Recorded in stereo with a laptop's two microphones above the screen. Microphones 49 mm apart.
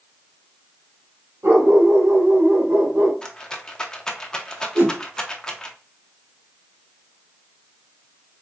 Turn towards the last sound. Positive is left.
turn(degrees=-55)  # may be behind; listen again after turning